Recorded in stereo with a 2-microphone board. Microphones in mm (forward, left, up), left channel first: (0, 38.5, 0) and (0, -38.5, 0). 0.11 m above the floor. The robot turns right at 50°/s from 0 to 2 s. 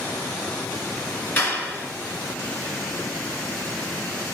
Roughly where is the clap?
Left.